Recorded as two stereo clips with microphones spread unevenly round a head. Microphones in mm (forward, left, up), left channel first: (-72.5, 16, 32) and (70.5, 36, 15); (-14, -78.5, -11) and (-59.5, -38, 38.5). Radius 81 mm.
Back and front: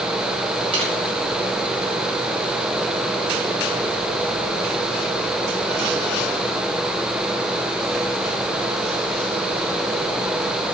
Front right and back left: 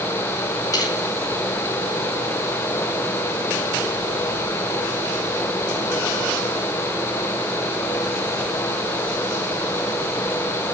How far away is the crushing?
About 7.5 m.